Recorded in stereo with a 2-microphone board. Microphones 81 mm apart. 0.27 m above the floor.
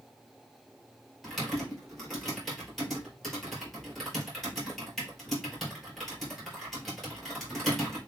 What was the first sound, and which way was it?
Typing on a keyboard, centre (ahead or behind).